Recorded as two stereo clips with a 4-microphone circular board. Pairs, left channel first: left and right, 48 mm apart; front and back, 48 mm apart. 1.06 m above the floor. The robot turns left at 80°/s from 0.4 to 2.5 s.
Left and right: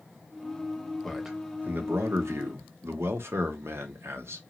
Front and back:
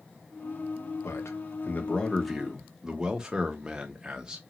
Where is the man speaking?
10° left, 1.0 m; by 4.4 s 105° right, 1.0 m.